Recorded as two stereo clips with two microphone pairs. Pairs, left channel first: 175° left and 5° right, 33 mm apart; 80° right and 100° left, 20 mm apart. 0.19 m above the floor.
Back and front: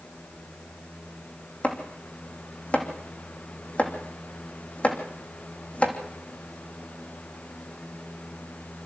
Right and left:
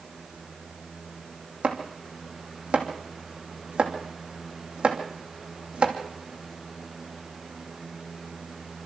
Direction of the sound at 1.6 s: 125° left.